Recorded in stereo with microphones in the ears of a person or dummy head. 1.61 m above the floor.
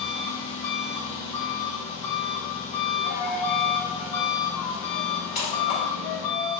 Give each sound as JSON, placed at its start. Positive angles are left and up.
{"t": 0.0, "sound": "an engine running", "side_deg": 20, "distance_m": 1.6}
{"t": 3.0, "sound": "a dropped coin", "side_deg": 50, "distance_m": 1.6}